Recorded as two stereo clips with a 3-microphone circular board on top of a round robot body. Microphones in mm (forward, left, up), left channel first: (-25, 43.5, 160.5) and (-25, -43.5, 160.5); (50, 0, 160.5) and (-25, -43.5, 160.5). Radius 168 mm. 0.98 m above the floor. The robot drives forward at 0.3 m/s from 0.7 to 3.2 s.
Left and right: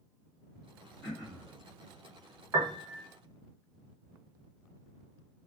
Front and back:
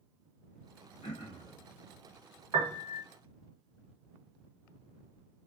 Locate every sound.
1.0 s throat clearing: 10° left, 0.7 m; by 1.5 s 15° left, 0.6 m
2.5 s a piano: 130° right, 0.8 m; by 3.1 s 140° right, 0.9 m